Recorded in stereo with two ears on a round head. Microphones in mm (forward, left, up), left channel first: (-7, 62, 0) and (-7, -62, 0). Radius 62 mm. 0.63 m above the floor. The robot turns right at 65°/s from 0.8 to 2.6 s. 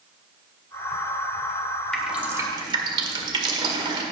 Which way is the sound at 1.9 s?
5° left (ahead or behind).